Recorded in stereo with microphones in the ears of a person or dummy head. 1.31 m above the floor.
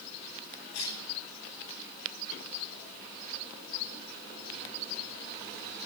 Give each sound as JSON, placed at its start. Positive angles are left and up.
{"t": 0.7, "sound": "a cough", "side_deg": 75, "distance_m": 9.5}